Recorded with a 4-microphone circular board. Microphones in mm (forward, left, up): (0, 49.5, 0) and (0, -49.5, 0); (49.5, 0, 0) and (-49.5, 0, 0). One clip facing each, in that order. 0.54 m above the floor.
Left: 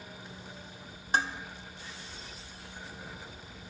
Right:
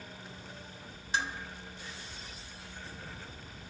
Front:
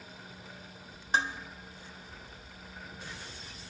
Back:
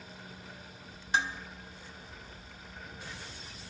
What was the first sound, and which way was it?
Dishes clattering, 50° left.